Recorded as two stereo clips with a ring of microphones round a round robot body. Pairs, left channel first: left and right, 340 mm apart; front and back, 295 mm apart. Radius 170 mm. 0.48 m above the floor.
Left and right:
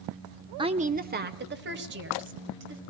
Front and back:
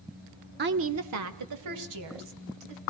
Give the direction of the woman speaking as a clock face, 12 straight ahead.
5 o'clock.